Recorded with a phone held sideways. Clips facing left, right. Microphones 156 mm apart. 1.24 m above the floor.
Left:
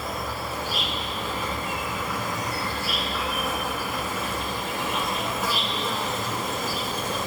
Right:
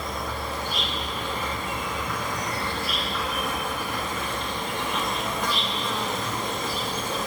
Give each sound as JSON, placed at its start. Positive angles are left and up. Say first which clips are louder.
{"t": 0.0, "sound": "an insect", "louder": "even", "side_deg": 5, "distance_m": 2.0}